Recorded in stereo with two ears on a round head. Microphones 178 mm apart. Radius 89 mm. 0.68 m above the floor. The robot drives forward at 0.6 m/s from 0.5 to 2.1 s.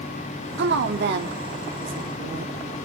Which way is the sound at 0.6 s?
60° right (ahead or behind).